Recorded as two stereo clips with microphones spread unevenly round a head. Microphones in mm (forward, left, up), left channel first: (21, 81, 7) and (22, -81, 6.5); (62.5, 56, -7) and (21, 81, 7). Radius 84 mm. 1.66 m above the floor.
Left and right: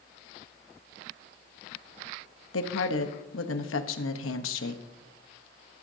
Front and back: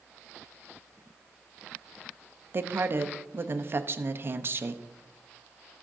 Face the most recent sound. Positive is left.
turn(degrees=110)